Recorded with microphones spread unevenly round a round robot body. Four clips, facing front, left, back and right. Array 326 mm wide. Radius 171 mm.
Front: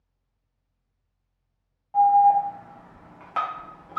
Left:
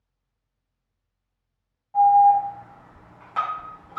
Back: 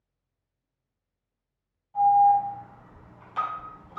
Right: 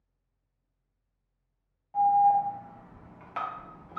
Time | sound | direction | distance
1.9 | an alarm | straight ahead | 0.6 m